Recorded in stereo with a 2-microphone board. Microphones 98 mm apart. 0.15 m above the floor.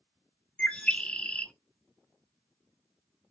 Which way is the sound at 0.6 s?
15° left (ahead or behind).